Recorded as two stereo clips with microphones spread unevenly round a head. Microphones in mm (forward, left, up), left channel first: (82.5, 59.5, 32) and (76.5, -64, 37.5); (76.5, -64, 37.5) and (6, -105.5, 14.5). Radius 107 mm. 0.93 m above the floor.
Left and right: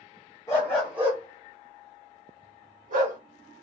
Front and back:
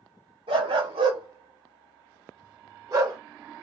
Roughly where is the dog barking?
Behind.